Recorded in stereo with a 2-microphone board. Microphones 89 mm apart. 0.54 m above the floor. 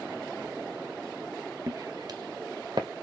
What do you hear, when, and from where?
1.7 s footsteps: 40° right (ahead or behind), 0.7 m; by 2.9 s 65° right (ahead or behind), 1.2 m